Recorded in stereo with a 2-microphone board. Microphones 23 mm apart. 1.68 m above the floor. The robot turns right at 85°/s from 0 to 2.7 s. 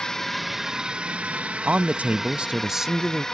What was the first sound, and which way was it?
A drone, 35° left (ahead or behind).